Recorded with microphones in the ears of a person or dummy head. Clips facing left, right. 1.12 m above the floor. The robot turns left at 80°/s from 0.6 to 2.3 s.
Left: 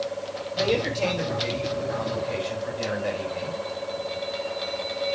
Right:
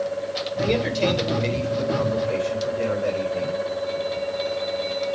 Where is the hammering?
I don't hear hammering.